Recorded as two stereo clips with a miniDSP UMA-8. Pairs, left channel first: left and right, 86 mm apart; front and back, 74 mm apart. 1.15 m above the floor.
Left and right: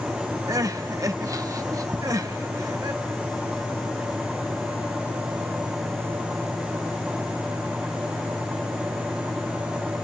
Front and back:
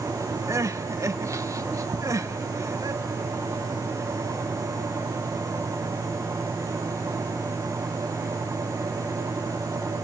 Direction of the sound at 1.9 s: 160° right.